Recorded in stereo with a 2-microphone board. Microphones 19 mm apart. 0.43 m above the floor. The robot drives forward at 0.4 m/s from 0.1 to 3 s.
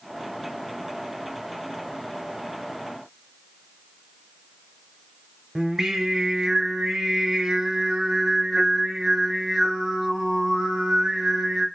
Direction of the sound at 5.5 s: 30° right (ahead or behind).